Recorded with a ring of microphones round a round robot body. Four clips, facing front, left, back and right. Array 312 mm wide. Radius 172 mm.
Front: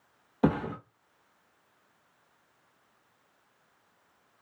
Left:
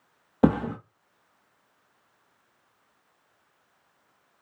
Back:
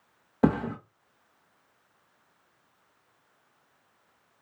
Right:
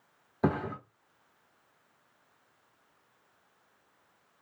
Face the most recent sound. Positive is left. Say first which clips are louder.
# left 8 dB, back 2 dB
turn(degrees=105)